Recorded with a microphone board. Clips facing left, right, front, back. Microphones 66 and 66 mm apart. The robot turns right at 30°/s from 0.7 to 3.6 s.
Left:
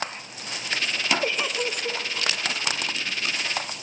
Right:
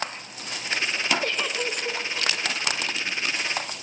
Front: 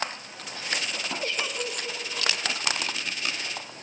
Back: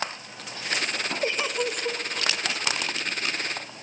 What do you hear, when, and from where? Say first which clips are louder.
1.2 s a giggle: left 1 dB, back 6 dB; 150° left, 1.3 m; by 2.0 s 175° left, 1.3 m